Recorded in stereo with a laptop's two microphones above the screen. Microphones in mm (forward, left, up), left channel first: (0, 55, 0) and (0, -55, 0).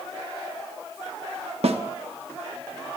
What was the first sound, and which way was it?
A snare drum, 65° right (ahead or behind).